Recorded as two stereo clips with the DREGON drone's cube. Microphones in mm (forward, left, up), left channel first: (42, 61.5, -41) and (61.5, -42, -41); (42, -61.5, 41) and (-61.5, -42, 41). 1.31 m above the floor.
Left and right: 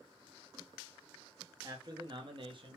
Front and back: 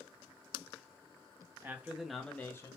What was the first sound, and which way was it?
A man speaking, 120° right.